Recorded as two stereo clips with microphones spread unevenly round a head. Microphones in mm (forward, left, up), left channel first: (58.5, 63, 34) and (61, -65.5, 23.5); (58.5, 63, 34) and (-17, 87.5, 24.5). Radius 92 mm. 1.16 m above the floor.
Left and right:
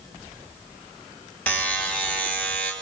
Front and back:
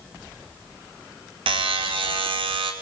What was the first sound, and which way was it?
A buzzer, 175° left.